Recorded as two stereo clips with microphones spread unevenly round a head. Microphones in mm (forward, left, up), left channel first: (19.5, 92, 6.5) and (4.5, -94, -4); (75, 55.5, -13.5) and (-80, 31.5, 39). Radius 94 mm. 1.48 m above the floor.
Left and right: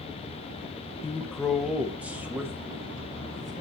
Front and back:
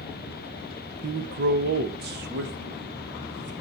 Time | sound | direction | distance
1.0 | a man speaking | 165° left | 1.1 m